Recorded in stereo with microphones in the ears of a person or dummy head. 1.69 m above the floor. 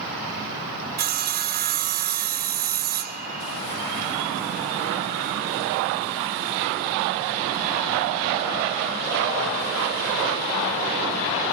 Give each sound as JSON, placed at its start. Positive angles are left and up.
{"t": 1.0, "sound": "sawing", "side_deg": -45, "distance_m": 1.5}